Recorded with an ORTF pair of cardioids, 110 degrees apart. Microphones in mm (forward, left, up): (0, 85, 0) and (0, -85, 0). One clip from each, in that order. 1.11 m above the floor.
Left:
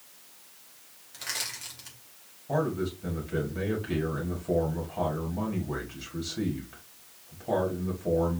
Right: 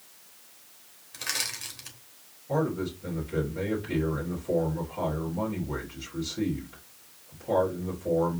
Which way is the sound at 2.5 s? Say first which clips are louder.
Even; 20° left.